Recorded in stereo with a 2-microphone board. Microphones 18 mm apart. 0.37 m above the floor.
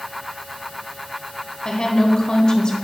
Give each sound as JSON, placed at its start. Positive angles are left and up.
{"t": 1.6, "sound": "a woman speaking", "side_deg": 45, "distance_m": 1.3}